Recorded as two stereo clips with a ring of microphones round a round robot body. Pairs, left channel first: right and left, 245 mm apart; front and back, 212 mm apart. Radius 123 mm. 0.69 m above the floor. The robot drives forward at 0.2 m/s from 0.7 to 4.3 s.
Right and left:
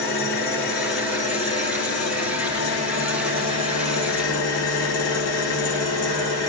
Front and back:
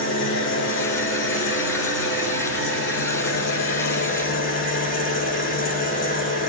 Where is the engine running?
40° right, 2.0 m; by 6.5 s 55° right, 1.5 m.